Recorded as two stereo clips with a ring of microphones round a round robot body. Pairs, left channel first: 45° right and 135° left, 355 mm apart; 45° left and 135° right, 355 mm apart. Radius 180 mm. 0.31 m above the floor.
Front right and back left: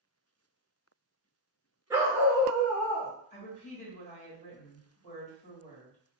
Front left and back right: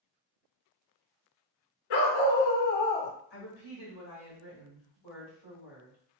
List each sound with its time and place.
1.9 s a dog barking: 55° left, 1.2 m; by 3.1 s 25° left, 0.5 m
3.3 s a woman speaking: 10° left, 1.8 m